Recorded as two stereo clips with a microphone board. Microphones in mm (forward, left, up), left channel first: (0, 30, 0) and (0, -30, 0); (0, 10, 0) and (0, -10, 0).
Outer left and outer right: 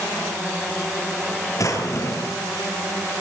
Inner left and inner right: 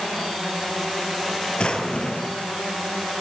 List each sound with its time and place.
1.6 s a drawer: 60° left (ahead or behind), 4.5 m